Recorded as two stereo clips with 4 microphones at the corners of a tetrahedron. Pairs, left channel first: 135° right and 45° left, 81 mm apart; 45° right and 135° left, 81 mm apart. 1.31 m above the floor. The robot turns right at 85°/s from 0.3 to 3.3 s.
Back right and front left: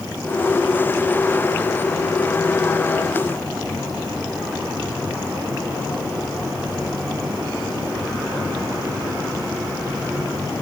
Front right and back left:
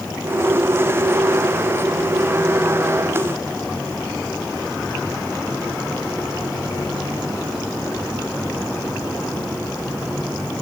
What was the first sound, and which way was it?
Only background noise.